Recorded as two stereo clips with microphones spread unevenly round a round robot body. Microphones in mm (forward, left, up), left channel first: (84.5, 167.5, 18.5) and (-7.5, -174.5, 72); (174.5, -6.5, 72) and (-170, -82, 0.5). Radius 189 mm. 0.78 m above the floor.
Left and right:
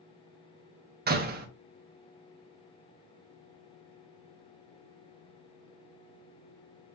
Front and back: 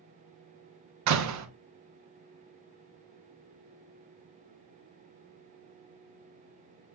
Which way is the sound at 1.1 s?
170° right.